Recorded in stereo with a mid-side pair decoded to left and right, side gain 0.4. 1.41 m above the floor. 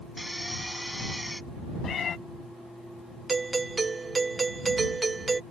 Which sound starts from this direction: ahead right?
A doorbell, at 3.3 s.